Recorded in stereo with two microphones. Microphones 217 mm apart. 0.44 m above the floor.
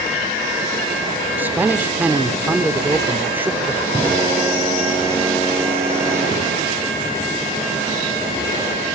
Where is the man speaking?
10° right (ahead or behind), 0.8 m.